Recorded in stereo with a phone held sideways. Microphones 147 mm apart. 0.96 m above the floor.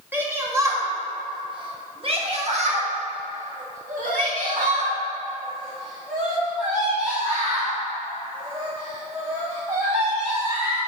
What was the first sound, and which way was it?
A shout, 15° right (ahead or behind).